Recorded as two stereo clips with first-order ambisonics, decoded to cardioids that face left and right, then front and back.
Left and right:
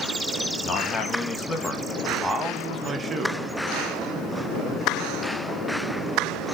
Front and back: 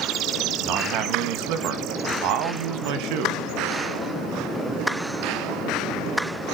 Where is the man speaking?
145° left, 1.6 m; by 3.4 s 160° right, 1.5 m.